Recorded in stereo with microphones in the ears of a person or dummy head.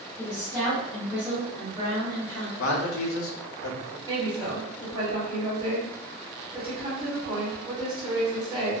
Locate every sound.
0.2 s a woman speaking: 20° left (ahead or behind), 0.8 m; by 2.5 s 65° right (ahead or behind), 0.9 m
2.6 s a man speaking: 65° left (ahead or behind), 0.6 m
4.1 s a woman speaking: 20° right (ahead or behind), 1.1 m